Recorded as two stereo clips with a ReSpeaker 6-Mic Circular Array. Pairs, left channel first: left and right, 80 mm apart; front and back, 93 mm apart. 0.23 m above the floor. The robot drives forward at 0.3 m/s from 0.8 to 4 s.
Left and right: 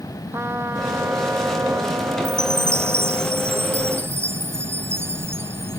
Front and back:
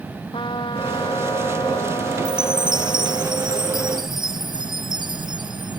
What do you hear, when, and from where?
0.3 s a trumpet: 30° right
2.2 s a chime: 145° right